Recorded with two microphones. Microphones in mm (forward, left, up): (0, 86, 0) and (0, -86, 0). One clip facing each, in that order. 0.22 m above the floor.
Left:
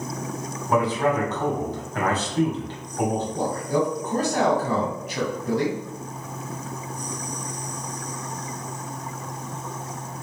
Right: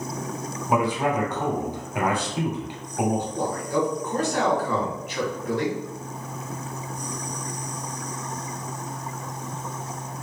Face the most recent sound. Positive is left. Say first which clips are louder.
# left 1 dB
turn(degrees=40)  # may be behind; listen again after turning